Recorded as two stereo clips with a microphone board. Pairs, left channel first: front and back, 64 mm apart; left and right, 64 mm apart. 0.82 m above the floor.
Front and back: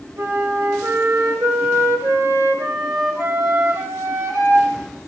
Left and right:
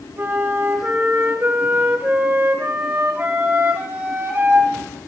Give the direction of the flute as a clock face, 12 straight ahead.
5 o'clock.